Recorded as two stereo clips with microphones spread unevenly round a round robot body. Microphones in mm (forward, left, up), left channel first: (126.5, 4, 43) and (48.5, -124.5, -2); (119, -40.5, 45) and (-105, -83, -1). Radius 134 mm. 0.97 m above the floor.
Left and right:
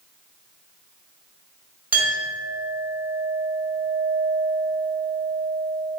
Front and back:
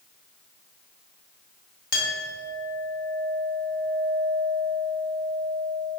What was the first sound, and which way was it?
A clink, 40° right.